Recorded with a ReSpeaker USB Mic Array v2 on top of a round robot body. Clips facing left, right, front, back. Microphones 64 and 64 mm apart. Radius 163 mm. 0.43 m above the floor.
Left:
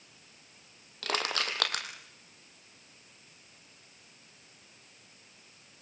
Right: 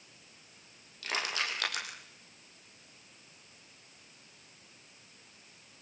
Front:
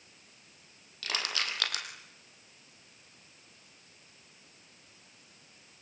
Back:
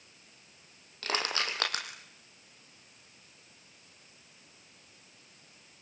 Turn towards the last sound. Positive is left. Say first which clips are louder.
# left 2 dB, back 3 dB
turn(degrees=125)